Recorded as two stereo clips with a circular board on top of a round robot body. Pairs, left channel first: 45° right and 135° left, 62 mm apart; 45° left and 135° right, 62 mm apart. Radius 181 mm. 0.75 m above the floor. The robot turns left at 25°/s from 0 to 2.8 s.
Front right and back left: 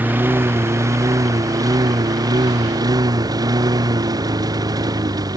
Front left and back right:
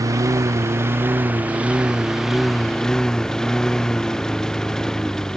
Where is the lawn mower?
165° right; by 5.4 s 125° left.